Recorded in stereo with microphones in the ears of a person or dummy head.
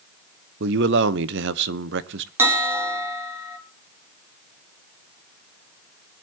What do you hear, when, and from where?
0.6 s a man speaking: 70° right (ahead or behind), 0.9 m
2.4 s a bell: 15° right (ahead or behind), 2.5 m